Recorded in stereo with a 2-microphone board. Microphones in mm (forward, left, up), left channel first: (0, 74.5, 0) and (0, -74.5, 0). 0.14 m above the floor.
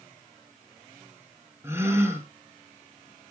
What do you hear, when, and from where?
1.6 s a gasp: 15° right (ahead or behind), 2.5 m